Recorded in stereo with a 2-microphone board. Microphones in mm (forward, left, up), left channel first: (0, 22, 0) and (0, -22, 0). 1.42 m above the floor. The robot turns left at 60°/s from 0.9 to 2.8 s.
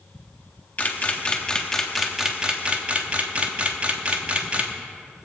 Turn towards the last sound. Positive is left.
turn(degrees=-30)  # may be behind; listen again after turning